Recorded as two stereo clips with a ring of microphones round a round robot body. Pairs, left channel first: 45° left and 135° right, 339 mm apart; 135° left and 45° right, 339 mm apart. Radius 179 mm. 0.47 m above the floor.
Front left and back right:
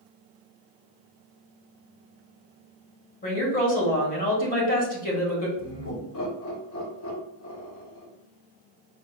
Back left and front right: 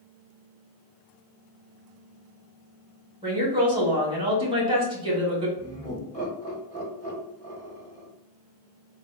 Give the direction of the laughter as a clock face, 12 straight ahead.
10 o'clock.